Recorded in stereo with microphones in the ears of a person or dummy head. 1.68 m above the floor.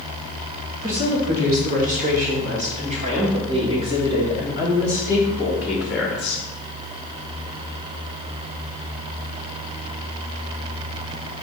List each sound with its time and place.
0.8 s a woman speaking: 50° right (ahead or behind), 3.5 m; by 6.4 s 5° left (ahead or behind), 2 m